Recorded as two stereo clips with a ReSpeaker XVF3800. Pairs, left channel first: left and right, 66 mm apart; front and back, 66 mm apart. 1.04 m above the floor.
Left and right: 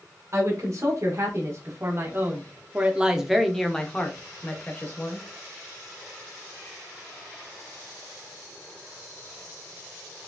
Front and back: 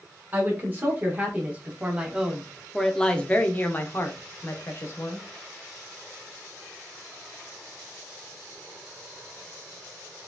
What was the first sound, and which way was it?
A woman speaking, 125° right.